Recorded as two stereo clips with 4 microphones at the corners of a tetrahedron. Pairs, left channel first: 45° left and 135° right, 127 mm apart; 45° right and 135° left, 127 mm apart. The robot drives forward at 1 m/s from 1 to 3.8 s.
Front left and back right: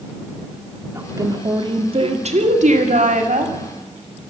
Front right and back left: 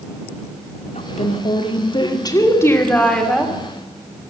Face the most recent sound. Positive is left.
turn(degrees=-140)